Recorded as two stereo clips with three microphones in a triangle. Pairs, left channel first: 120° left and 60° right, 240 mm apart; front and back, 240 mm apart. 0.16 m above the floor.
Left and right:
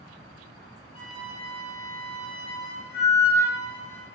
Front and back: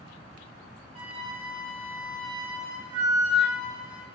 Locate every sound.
0.9 s a flute: 100° left, 1.2 m